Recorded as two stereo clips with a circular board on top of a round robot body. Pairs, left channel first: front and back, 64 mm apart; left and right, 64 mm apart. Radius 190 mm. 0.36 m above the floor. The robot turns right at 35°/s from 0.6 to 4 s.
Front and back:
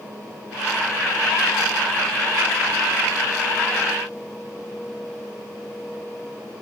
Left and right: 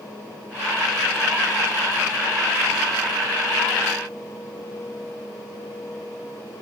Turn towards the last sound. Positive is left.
No sound to turn to.